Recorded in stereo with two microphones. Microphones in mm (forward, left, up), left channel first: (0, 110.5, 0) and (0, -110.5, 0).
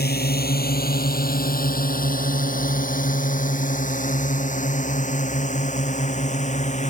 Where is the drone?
45° left (ahead or behind); by 6.9 s 35° left (ahead or behind).